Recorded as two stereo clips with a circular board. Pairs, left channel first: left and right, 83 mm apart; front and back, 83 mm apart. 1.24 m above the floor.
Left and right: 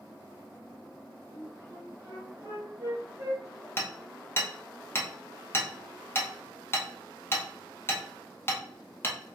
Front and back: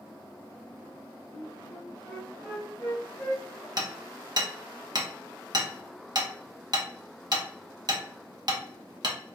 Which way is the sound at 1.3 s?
85° right.